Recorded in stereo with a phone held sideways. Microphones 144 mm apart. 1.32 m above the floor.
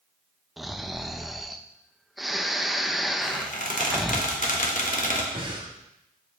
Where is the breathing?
35° right (ahead or behind), 1.6 m.